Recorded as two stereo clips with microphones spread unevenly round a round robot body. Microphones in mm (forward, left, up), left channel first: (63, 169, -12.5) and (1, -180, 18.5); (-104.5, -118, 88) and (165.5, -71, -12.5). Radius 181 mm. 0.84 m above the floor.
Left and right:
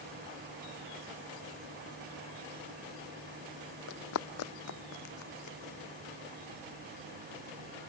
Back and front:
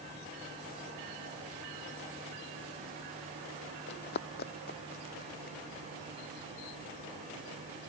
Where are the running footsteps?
140° left; by 5.6 s 130° left.